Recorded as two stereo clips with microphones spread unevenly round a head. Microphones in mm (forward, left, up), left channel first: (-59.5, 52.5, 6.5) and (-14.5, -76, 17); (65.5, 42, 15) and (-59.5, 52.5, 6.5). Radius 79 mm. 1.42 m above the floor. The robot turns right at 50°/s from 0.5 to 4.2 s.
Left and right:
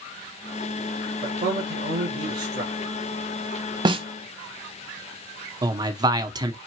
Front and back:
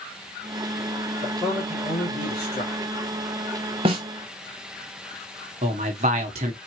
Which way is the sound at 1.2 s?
115° right.